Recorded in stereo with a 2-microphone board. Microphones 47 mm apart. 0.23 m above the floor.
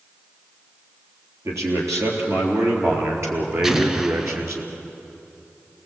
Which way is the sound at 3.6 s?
10° right (ahead or behind).